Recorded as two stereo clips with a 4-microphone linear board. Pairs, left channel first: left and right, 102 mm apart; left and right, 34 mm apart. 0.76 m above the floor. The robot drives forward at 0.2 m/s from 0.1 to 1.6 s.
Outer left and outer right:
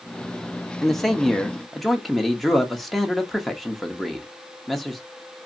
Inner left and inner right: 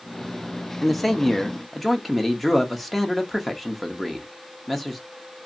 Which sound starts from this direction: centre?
A man speaking, at 0.8 s.